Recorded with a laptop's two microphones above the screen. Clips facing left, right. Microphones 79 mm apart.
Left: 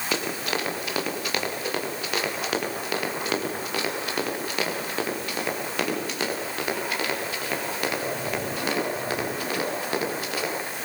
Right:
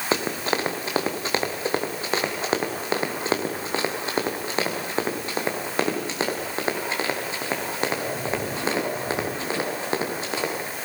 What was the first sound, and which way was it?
Running footsteps, 30° right (ahead or behind).